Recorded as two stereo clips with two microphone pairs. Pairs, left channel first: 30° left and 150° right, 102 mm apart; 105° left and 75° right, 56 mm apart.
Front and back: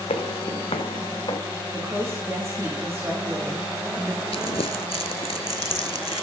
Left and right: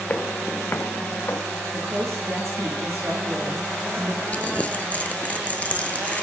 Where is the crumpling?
45° left, 0.7 m.